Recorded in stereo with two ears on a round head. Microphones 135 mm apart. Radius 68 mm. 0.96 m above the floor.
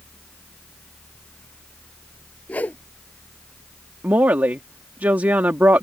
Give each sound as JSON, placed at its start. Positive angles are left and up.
{"t": 2.5, "sound": "a whoosh", "side_deg": 10}
{"t": 4.0, "sound": "a woman speaking", "side_deg": -10}